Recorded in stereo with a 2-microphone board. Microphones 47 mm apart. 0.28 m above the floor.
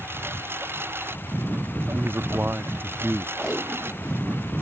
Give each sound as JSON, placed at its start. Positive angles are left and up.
{"t": 0.0, "sound": "a lawn mower", "side_deg": -50}
{"t": 1.9, "sound": "a man speaking", "side_deg": -50}
{"t": 3.4, "sound": "tape being pulled", "side_deg": 0}